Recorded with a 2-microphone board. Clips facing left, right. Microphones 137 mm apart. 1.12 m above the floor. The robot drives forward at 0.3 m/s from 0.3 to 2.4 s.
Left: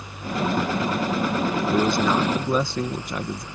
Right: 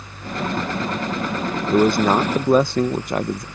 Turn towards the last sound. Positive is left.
turn(degrees=-60)  # may be behind; listen again after turning